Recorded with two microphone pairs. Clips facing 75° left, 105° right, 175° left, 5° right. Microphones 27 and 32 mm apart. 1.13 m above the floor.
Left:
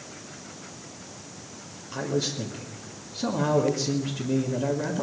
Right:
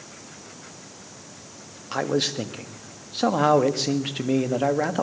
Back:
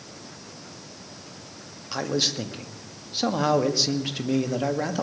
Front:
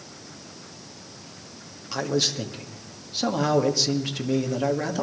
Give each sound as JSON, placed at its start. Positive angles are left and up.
{"t": 1.9, "sound": "a man speaking", "azimuth_deg": -105, "distance_m": 1.7}